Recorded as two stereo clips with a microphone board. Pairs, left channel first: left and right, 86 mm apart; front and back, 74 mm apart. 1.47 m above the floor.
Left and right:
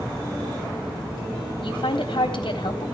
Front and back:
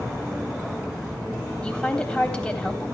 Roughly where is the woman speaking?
Left.